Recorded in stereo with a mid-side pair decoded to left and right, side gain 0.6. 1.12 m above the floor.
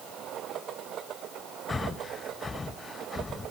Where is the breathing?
20° left, 0.7 m.